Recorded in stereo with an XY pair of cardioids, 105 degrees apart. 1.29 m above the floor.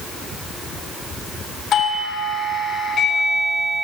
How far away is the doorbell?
About 1.9 m.